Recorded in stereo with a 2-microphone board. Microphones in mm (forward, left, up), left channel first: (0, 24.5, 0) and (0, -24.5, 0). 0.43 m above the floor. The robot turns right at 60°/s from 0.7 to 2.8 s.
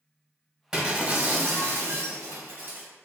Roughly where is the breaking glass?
Behind.